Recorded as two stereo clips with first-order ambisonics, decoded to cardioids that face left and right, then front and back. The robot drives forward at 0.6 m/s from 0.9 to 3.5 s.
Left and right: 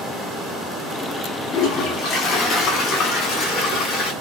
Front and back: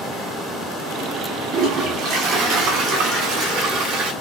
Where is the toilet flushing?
135° left, 5 m; by 4.1 s 145° left, 6 m.